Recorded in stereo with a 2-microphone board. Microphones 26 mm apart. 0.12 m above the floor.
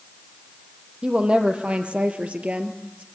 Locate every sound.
1.0 s a woman speaking: 50° right (ahead or behind), 3.5 m